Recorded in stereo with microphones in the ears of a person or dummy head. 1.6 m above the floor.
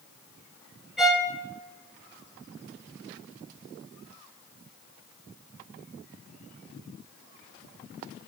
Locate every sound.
1.0 s a violin: 5° right (ahead or behind), 0.5 m